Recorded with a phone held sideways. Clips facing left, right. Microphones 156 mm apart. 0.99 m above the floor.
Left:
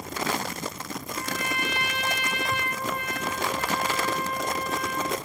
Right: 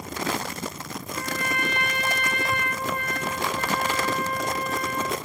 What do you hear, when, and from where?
1.1 s a trumpet: 55° right (ahead or behind), 4 m